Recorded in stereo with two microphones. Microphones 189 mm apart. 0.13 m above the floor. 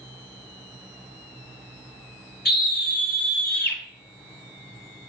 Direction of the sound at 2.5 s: 55° left (ahead or behind).